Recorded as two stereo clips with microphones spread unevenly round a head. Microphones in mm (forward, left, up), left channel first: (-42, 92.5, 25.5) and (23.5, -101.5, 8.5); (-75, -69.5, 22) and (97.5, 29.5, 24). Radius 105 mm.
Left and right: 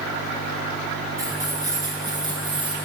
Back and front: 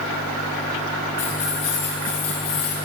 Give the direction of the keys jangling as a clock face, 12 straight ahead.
5 o'clock.